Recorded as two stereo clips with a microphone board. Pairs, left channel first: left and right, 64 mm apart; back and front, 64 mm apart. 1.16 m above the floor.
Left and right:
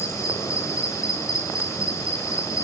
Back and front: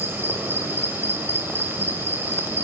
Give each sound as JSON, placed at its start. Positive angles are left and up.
{"t": 0.0, "sound": "an insect", "azimuth_deg": 55, "distance_m": 5.0}